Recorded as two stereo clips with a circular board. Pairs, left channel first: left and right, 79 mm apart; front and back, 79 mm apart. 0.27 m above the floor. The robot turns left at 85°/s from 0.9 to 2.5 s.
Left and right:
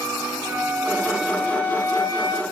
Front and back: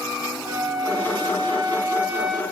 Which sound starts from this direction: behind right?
A flute, at 0.5 s.